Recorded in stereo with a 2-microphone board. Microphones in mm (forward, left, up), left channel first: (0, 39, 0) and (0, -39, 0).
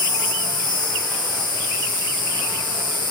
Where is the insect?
85° left, 5 m.